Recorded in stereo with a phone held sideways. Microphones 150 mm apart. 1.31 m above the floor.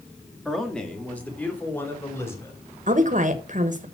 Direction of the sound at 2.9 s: 55° right (ahead or behind).